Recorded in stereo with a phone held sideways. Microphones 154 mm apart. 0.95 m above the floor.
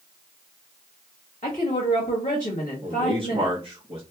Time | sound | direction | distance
1.4 | a woman speaking | 55° left (ahead or behind) | 1.7 m
2.8 | a man speaking | 35° right (ahead or behind) | 0.8 m